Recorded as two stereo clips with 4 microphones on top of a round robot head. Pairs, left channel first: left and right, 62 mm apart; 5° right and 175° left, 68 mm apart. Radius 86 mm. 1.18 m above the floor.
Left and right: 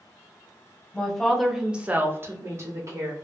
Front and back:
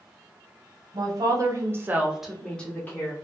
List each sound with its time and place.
0.9 s a woman speaking: 170° left, 0.9 m; by 3.1 s 60° right, 0.9 m